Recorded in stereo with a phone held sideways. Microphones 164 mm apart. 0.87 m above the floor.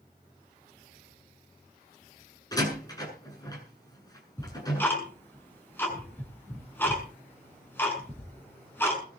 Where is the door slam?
20° left (ahead or behind), 7.5 m.